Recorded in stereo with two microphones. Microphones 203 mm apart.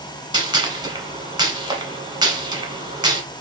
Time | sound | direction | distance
0.3 | a gunshot | 20° right (ahead or behind) | 0.9 m